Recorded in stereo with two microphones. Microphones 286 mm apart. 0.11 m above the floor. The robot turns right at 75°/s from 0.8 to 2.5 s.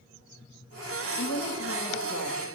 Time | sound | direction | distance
1.2 | a woman speaking | 85° left | 4.5 m